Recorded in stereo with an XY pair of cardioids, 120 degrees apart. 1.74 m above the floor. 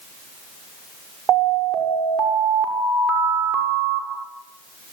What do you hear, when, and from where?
1.3 s an alarm: 60° right, 6.5 m